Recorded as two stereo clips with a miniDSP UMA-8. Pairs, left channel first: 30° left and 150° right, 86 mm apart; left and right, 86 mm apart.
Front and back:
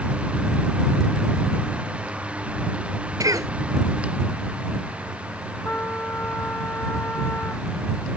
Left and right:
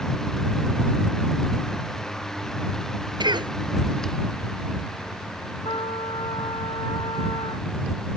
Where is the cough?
110° right.